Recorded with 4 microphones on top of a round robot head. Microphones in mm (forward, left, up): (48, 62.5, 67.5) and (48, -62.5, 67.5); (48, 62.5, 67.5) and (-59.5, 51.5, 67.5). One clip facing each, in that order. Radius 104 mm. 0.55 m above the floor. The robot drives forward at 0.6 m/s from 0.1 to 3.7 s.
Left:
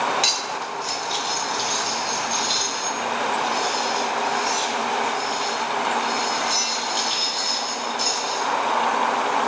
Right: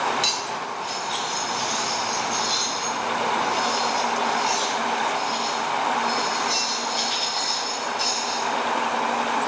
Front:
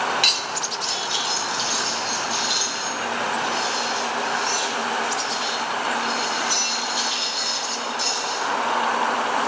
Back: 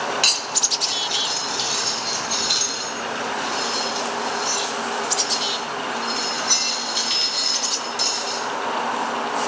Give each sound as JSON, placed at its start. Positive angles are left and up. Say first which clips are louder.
{"t": 0.2, "sound": "cutlery clinking", "louder": "left 1 dB, front 1 dB", "azimuth_deg": 130, "distance_m": 0.8}